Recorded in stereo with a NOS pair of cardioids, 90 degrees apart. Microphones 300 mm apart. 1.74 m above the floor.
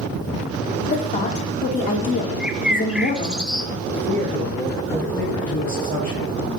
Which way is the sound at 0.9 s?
25° left.